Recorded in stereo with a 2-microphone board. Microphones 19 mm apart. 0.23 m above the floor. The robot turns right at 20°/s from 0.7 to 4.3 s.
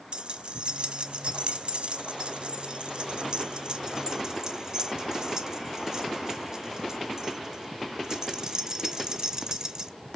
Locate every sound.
0.1 s keys jangling: 55° right (ahead or behind), 1.9 m; by 9.9 s 35° right (ahead or behind), 1.9 m